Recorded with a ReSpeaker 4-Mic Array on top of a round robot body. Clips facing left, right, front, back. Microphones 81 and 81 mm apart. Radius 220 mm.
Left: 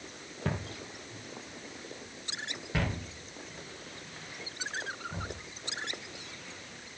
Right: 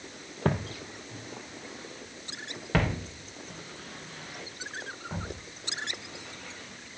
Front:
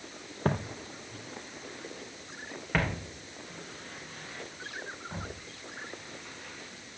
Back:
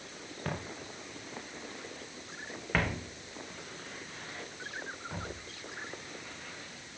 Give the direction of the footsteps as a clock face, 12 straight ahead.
2 o'clock.